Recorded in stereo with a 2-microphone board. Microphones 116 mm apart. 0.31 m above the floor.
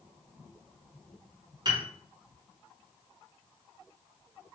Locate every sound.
1.6 s a piano: 40° right (ahead or behind), 0.9 m